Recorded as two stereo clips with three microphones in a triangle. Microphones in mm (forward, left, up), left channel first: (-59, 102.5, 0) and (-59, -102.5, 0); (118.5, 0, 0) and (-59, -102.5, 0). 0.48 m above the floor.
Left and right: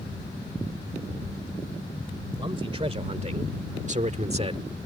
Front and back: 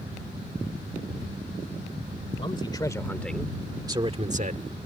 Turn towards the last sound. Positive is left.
turn(degrees=-140)